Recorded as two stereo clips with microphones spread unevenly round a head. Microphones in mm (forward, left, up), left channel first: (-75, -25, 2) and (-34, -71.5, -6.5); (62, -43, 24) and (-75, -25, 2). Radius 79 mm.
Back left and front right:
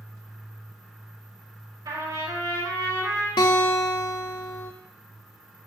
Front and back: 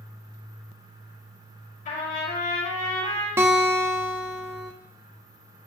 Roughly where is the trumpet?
Ahead right.